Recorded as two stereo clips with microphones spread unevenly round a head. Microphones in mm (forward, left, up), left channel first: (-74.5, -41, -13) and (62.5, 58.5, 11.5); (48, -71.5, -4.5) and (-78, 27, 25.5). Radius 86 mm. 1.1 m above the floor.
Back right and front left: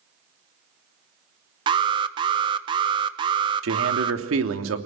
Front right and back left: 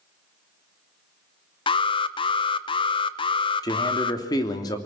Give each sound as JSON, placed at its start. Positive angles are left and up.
{"t": 1.7, "sound": "an alarm", "azimuth_deg": -25, "distance_m": 1.2}
{"t": 3.6, "sound": "a man speaking", "azimuth_deg": 30, "distance_m": 3.0}